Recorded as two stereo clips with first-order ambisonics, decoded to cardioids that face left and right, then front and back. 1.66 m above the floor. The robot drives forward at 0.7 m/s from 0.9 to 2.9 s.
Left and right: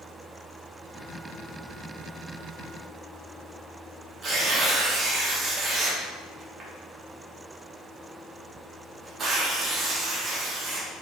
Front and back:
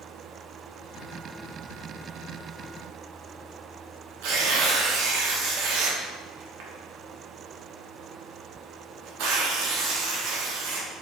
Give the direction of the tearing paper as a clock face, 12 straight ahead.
5 o'clock.